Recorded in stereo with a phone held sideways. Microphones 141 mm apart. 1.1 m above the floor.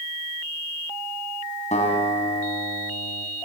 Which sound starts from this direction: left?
A guitar, at 1.7 s.